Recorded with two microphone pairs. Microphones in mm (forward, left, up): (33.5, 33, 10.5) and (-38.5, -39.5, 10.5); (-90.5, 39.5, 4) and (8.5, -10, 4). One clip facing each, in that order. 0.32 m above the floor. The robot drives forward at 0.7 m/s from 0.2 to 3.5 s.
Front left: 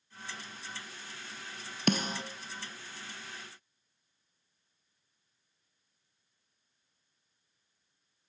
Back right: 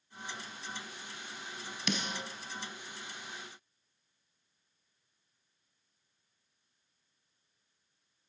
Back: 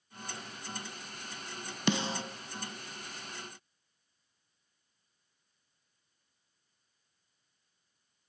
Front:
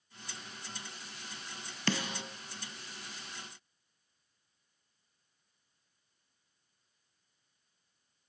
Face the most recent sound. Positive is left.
turn(degrees=150)